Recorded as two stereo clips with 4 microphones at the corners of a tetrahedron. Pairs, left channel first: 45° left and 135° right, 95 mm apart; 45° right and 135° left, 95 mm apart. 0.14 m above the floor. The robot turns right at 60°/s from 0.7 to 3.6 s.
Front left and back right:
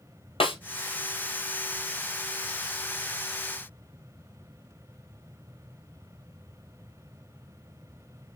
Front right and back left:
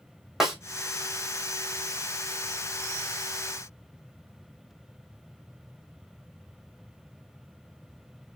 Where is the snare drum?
50° left, 1.7 m.